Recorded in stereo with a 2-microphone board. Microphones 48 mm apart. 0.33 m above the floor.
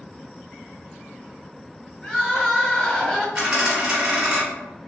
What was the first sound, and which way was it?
Crying, 20° left (ahead or behind).